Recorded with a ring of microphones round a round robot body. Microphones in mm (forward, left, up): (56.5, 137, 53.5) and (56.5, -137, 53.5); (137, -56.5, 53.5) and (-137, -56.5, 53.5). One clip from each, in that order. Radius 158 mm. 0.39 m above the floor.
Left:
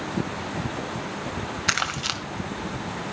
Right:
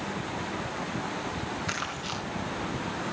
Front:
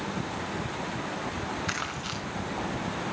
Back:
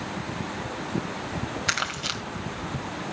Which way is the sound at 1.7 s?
125° left.